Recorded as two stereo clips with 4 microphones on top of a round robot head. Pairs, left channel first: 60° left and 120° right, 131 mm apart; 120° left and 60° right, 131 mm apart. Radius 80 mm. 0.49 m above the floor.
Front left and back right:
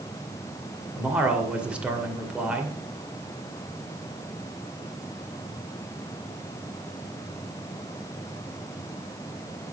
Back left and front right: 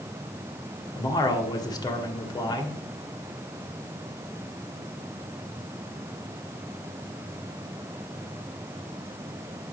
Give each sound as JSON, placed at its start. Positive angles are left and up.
{"t": 0.9, "sound": "a man speaking", "azimuth_deg": 160, "distance_m": 1.7}